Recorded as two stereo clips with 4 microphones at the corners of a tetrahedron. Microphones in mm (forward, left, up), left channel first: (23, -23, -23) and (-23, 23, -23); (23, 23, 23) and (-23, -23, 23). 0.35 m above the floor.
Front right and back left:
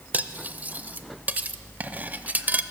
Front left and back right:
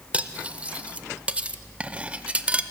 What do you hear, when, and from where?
0.1 s cutlery clinking: 175° left, 0.5 m